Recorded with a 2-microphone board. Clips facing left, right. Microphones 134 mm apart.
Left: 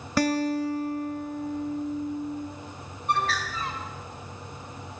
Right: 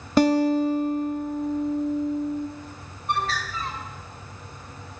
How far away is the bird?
About 5 m.